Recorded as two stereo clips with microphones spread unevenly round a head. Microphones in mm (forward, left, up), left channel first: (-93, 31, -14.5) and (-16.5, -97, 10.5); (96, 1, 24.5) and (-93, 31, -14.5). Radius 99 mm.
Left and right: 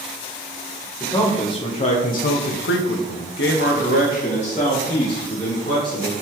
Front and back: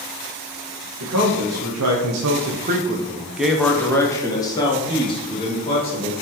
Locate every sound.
1.0 s a man speaking: 170° right, 1.1 m; by 6.1 s 50° left, 2 m